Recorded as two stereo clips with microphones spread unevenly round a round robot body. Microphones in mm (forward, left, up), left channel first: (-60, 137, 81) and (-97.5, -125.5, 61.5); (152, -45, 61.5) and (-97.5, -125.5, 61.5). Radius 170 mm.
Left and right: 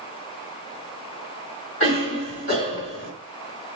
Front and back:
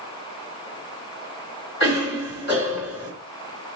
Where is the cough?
50° left, 2 m.